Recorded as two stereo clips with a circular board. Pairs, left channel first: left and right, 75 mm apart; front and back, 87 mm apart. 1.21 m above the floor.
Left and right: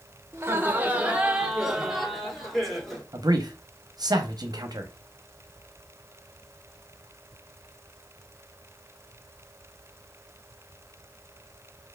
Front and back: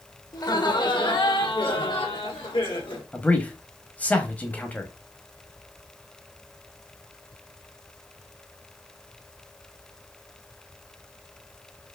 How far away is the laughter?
About 1.0 m.